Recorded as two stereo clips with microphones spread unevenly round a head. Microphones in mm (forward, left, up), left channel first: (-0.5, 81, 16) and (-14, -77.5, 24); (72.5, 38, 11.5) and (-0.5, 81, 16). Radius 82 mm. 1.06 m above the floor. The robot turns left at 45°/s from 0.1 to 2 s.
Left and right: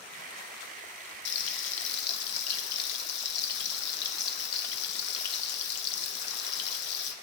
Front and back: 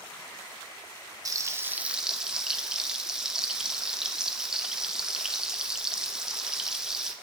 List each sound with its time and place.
1.2 s frying: 100° left, 0.7 m; by 7.1 s 65° left, 0.7 m